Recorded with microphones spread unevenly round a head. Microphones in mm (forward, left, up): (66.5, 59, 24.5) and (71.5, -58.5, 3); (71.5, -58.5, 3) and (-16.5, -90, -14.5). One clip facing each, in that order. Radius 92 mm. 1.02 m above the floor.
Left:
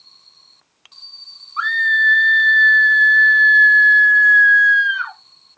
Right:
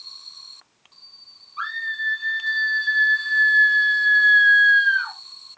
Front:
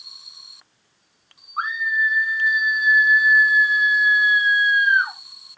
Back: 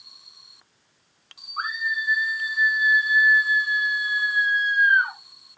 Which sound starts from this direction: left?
A scream, at 1.6 s.